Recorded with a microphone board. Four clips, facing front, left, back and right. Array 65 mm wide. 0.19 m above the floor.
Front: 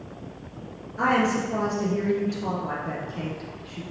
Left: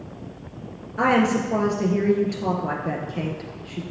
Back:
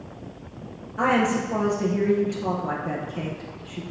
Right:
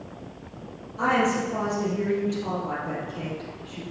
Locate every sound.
1.0 s a woman speaking: 105° left, 2.5 m